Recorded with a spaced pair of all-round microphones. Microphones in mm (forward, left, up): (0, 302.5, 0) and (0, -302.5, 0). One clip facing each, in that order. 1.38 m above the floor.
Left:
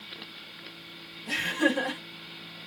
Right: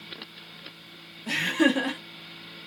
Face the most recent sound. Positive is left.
turn(degrees=-85)